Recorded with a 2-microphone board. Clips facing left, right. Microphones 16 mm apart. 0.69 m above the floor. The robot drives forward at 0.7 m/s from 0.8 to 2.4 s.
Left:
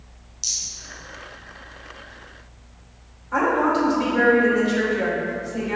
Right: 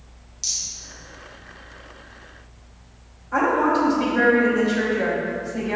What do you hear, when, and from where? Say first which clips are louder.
0.4 s a rattle: even; 10° left (ahead or behind), 2.5 m
3.3 s a woman speaking: even; 15° left (ahead or behind), 2.5 m